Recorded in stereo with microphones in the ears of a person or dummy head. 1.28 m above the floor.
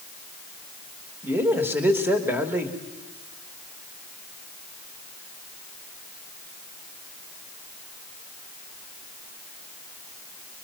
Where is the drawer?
No drawer in this recording.